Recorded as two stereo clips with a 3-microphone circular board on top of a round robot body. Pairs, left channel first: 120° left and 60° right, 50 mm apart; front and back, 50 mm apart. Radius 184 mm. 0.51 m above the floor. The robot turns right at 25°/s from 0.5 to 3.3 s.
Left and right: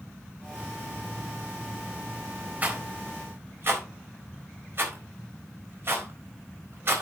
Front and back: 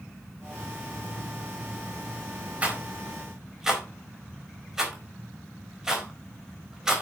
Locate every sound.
2.6 s a rattle: 120° right, 4 m; by 7.0 s 100° right, 4 m